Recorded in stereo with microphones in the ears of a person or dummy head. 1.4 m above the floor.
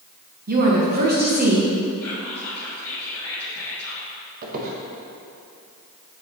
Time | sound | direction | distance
0.5 | a woman speaking | 50° right (ahead or behind) | 1.5 m
2.0 | whispering | 15° left (ahead or behind) | 2 m
4.4 | a squeak | 45° right (ahead or behind) | 1.1 m